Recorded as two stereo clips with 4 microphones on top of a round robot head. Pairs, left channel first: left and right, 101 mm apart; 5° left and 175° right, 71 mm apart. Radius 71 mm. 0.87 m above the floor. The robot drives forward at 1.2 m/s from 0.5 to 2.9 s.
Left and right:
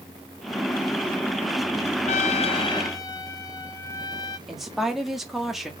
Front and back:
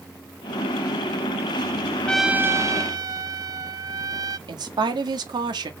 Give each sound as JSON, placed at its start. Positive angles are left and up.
{"t": 2.1, "sound": "a trumpet", "azimuth_deg": 80, "distance_m": 0.5}
{"t": 4.5, "sound": "a woman speaking", "azimuth_deg": 180, "distance_m": 1.8}